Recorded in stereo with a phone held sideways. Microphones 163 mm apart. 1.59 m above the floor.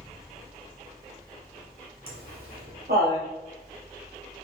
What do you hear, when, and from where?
0.0 s a fan: centre (ahead or behind), 0.9 m
2.1 s laughter: 70° right (ahead or behind), 1.4 m